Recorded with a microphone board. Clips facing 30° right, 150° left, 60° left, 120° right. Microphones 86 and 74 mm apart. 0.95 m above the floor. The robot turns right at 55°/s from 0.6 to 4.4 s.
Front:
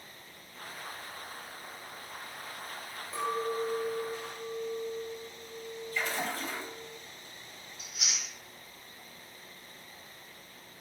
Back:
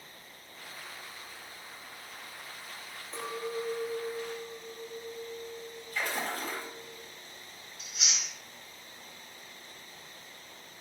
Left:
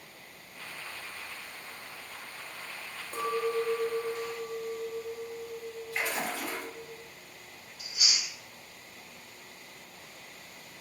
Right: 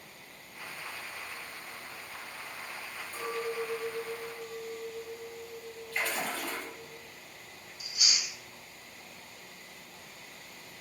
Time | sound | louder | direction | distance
3.1 | a clink | front 4 dB, left 5 dB | 60° left | 0.5 m
5.9 | a splash | even, even | 130° left | 0.8 m
7.8 | chewing | back 2 dB, even | 55° left | 1.2 m